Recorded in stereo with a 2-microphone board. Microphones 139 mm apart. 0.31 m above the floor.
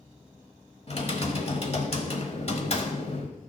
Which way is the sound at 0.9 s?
45° left (ahead or behind).